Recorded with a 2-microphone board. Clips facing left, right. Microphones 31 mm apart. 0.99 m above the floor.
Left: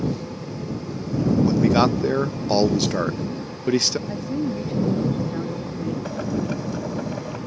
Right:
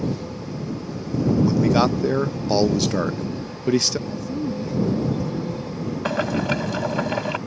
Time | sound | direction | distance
1.4 | a man speaking | 5° left (ahead or behind) | ?
4.1 | a woman speaking | 50° left (ahead or behind) | ?
6.0 | boiling | 75° right (ahead or behind) | ?